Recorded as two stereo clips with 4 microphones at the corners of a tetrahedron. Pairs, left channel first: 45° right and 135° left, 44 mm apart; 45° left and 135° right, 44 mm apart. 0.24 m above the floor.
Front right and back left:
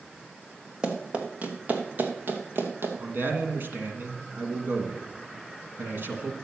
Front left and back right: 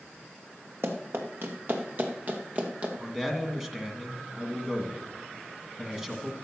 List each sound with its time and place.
0.8 s running footsteps: 160° right, 2.5 m; by 2.9 s 165° left, 2.5 m
3.0 s a man speaking: 150° left, 2.0 m